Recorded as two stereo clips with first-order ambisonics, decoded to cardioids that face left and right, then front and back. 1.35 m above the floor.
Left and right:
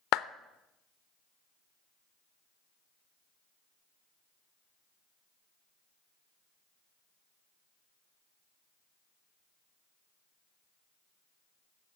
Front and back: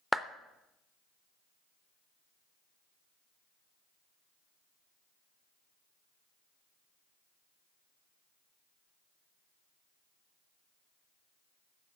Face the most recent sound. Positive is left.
turn(degrees=90)